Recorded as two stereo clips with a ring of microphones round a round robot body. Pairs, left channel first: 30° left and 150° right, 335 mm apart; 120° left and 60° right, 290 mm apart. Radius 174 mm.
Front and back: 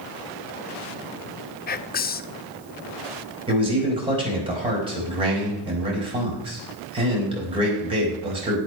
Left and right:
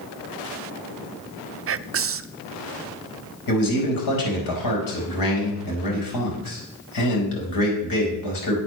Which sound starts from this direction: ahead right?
Whispering, at 1.7 s.